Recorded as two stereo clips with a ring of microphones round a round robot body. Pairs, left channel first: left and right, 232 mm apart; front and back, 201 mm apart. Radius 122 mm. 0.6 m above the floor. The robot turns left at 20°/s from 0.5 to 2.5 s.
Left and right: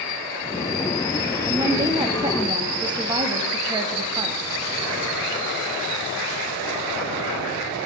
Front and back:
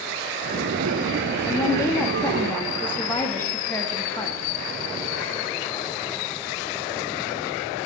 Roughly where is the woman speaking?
Ahead right.